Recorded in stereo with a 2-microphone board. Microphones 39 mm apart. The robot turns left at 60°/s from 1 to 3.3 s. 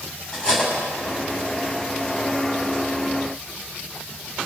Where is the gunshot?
I don't hear a gunshot.